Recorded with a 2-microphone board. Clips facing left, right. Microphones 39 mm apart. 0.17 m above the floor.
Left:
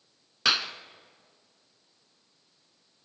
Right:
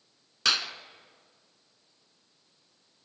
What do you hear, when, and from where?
0.5 s a clap: 10° left (ahead or behind), 1.2 m